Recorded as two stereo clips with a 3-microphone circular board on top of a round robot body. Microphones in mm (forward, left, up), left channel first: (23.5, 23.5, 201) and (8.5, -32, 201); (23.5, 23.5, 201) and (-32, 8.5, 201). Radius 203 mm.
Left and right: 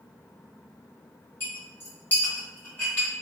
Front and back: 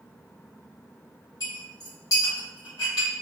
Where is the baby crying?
I don't hear a baby crying.